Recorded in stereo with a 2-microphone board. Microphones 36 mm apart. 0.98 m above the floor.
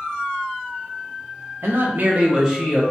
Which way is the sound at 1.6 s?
75° right (ahead or behind).